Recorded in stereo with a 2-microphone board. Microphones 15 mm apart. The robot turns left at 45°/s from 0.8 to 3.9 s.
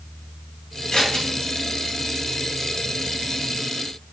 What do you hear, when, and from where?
0.9 s scissors: 45° left (ahead or behind), 3.5 m; by 1.2 s 60° left (ahead or behind), 3.5 m